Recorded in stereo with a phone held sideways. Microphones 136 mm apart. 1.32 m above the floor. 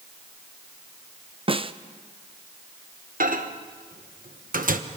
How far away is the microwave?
About 1.1 m.